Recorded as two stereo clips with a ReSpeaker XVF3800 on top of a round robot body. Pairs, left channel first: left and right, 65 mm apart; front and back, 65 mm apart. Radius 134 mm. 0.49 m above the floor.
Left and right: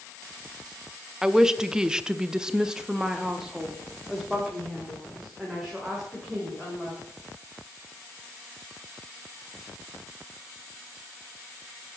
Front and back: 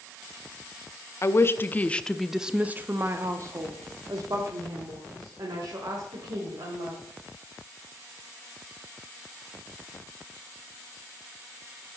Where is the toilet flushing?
I don't hear a toilet flushing.